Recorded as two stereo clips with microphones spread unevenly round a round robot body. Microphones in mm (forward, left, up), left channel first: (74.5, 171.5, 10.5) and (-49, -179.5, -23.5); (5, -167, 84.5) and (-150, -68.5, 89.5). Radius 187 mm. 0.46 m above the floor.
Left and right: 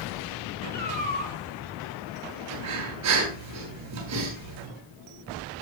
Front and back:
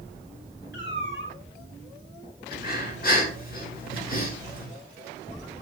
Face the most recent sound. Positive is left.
turn(degrees=-65)